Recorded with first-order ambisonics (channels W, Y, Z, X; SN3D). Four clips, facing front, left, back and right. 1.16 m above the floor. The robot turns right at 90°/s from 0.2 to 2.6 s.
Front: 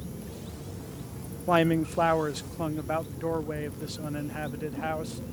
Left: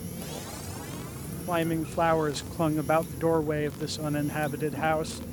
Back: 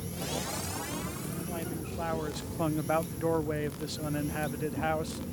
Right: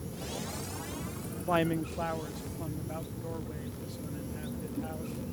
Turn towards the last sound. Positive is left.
turn(degrees=95)